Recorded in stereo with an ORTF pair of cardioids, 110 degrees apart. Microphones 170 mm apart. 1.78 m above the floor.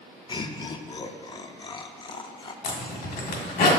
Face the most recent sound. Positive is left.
turn(degrees=70)